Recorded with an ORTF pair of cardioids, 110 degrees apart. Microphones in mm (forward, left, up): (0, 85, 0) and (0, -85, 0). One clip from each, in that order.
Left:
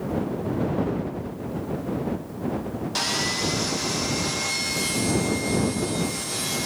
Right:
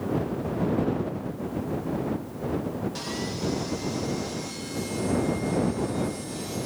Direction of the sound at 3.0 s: 60° left.